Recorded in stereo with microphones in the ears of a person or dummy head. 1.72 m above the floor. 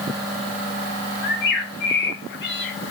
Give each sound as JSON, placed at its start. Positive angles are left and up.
{"t": 1.2, "sound": "a bird", "side_deg": 55, "distance_m": 1.3}